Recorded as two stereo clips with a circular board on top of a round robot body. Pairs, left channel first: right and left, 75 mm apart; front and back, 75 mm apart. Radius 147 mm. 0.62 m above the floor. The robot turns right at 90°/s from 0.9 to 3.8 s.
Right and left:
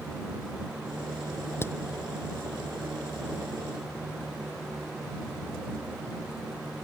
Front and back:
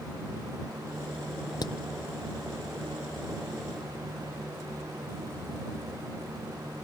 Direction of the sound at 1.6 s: 30° right.